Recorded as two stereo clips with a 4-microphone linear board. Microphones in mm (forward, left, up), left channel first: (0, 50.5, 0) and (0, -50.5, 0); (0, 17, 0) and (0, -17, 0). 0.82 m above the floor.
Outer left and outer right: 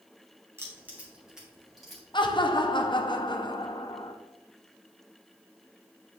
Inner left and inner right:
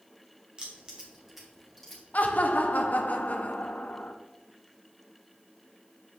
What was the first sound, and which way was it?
Keys jangling, 25° right (ahead or behind).